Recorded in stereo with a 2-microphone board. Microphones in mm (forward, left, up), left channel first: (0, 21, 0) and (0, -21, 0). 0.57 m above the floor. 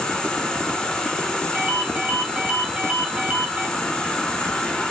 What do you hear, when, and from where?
0.0 s an insect: 10° left (ahead or behind), 2.5 m
1.5 s a ringtone: 35° right (ahead or behind), 2.5 m